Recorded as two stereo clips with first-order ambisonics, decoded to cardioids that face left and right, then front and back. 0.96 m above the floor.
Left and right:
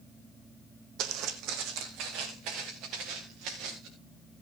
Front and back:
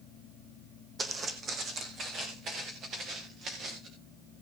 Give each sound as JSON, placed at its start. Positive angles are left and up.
{"t": 1.0, "sound": "footsteps", "azimuth_deg": -110, "distance_m": 1.7}